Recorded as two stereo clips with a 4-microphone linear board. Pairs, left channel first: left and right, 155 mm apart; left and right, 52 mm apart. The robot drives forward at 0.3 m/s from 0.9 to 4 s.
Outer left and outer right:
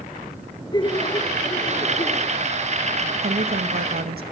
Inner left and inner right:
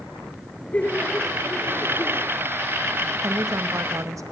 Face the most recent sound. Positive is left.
turn(degrees=-90)